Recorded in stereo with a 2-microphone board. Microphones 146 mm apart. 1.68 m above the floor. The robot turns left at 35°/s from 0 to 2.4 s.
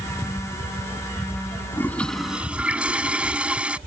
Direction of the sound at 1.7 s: 15° left (ahead or behind).